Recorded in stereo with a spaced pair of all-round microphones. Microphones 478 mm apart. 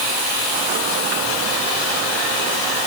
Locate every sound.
Only background noise.